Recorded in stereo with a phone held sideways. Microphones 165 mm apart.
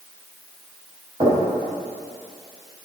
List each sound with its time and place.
1.2 s knocking: 35° right (ahead or behind), 3.5 m